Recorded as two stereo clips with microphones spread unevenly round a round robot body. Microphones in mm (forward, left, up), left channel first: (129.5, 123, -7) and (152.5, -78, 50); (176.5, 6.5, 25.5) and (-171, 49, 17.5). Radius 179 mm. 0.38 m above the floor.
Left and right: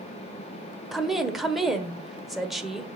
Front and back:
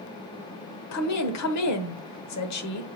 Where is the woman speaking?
20° left, 1.2 m.